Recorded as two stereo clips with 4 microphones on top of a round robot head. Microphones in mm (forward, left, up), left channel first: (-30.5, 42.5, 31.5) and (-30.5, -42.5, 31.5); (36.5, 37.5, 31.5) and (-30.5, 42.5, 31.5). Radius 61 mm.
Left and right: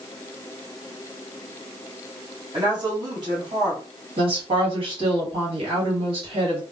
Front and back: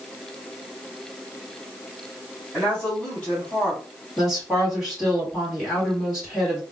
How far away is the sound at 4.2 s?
About 1.4 m.